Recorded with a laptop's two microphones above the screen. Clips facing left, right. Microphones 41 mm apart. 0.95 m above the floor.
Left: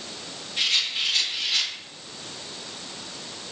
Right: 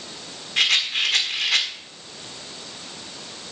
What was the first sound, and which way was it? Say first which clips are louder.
A rattle: right 5 dB; 85° right.